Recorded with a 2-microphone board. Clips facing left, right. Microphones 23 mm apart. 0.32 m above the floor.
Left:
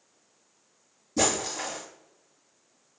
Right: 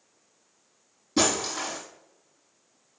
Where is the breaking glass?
55° right (ahead or behind), 4.5 m.